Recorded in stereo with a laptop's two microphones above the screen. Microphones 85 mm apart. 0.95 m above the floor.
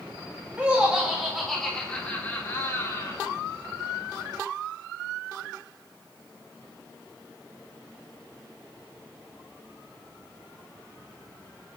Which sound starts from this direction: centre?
Laughter, at 0.6 s.